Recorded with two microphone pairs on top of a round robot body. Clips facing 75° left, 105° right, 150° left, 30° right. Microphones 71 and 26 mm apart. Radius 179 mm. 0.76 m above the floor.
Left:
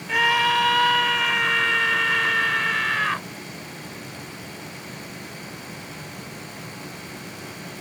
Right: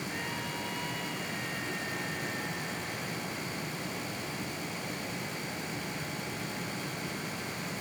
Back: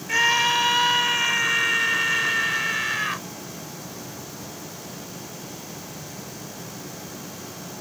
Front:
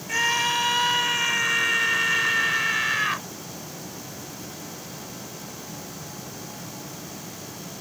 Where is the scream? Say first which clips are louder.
Left 17 dB, back 3 dB; 80° left; by 3.2 s 55° left.